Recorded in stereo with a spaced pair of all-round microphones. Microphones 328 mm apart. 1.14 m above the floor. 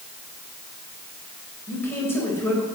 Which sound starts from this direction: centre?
A man speaking, at 1.7 s.